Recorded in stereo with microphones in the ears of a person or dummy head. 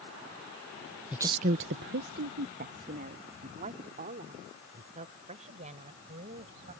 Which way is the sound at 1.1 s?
5° right (ahead or behind).